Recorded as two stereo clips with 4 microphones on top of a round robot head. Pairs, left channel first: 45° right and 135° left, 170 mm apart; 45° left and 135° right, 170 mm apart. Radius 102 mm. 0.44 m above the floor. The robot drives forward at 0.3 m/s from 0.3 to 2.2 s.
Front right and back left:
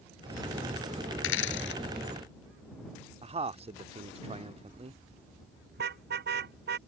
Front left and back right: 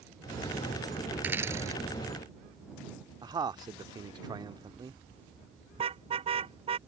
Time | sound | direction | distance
1.2 | a dropped coin | 55° right | ?
3.2 | a man speaking | 170° left | ?
5.7 | a car horn | 165° left | ?